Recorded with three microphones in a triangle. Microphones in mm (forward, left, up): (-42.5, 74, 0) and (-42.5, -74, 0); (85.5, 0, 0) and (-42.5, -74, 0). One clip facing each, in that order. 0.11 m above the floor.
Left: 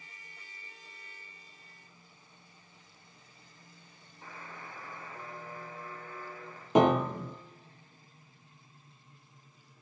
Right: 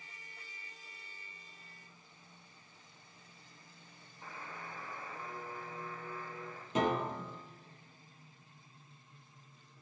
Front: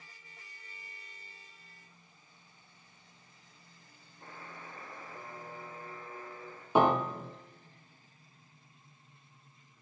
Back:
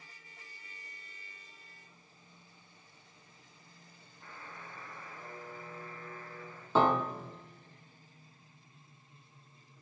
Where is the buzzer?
25° left, 2.5 m.